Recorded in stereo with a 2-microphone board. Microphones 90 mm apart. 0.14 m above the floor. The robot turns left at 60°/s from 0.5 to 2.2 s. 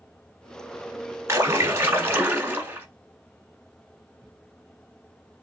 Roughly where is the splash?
Right.